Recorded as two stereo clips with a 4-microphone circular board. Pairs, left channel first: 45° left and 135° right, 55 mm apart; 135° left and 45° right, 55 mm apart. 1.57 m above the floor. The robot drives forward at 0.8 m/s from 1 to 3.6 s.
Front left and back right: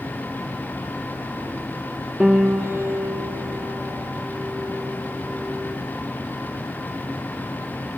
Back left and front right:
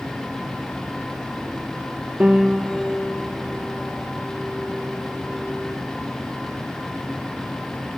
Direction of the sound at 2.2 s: 75° right.